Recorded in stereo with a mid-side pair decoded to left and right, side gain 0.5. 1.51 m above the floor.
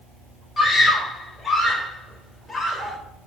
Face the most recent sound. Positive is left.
turn(degrees=25)